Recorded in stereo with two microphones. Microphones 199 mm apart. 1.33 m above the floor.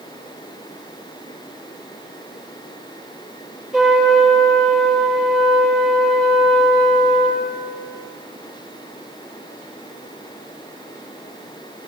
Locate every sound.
3.7 s a trumpet: centre (ahead or behind), 8 m